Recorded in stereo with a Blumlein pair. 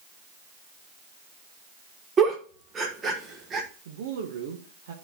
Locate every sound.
2.2 s a giggle: 20° right, 1.2 m
3.9 s a woman speaking: 55° right, 1.0 m